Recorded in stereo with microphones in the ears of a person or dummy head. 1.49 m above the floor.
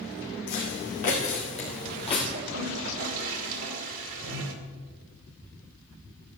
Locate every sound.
0.5 s footsteps: 45° left (ahead or behind), 4.5 m; by 2.2 s 25° left (ahead or behind), 3.5 m
2.3 s a toilet flushing: 75° right (ahead or behind), 2.5 m